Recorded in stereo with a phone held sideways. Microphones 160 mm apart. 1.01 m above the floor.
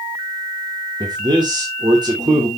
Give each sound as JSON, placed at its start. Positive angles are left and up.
{"t": 1.0, "sound": "a man speaking", "side_deg": -30, "distance_m": 2.5}